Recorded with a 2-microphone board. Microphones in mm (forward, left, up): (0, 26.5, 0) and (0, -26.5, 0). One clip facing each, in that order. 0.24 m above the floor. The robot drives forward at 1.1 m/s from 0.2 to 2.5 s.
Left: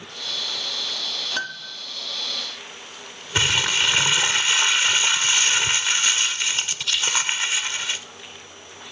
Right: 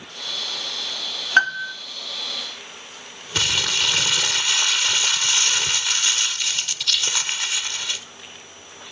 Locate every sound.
1.4 s a piano: 50° right (ahead or behind), 0.7 m; by 1.8 s 40° right (ahead or behind), 0.9 m
3.4 s crumpling: 25° left (ahead or behind), 0.6 m